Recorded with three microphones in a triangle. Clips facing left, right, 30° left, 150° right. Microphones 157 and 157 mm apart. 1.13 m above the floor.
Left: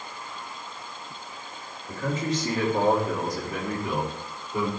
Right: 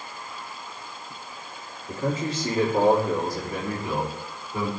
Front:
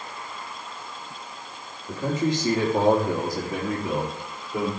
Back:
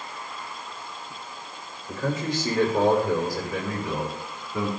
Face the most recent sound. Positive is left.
turn(degrees=10)